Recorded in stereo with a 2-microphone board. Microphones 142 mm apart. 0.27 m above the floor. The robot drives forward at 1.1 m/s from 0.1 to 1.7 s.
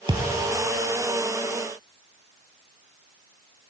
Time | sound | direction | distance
0.1 | a thud | 35° right (ahead or behind) | 1.1 m